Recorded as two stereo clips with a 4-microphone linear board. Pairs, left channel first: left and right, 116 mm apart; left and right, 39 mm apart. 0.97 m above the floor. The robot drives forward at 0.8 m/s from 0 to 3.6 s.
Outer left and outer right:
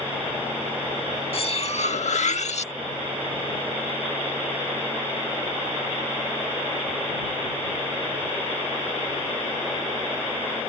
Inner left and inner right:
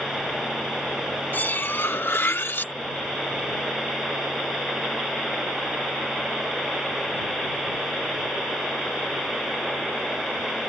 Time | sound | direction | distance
1.3 | cutlery clinking | 55° left (ahead or behind) | ?